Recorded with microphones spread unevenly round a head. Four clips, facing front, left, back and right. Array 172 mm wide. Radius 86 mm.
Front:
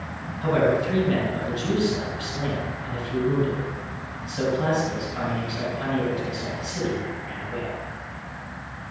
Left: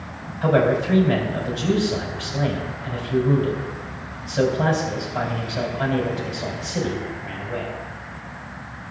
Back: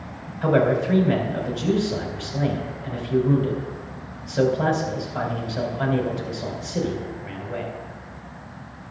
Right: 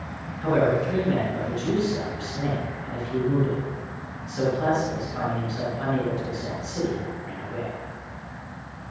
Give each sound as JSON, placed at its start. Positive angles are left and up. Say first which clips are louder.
{"t": 0.4, "sound": "a man speaking", "louder": "left 3 dB, back 2 dB", "azimuth_deg": 145, "distance_m": 4.0}